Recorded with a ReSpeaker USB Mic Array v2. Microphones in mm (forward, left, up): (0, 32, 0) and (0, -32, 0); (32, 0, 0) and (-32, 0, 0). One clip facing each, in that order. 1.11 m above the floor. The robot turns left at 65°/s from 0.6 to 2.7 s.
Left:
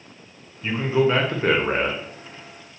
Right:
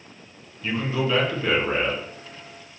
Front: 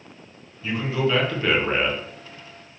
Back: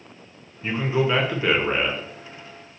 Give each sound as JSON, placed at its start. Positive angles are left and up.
{"t": 0.6, "sound": "a man speaking", "azimuth_deg": 155, "distance_m": 0.6}